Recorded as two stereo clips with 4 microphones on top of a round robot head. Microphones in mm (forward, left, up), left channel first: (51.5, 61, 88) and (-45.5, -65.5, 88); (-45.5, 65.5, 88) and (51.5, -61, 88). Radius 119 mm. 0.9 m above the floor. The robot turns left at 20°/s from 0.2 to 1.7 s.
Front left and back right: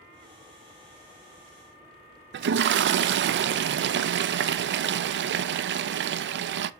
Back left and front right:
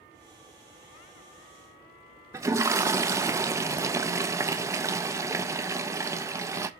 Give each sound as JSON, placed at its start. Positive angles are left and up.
{"t": 2.3, "sound": "a toilet flushing", "azimuth_deg": -125, "distance_m": 0.5}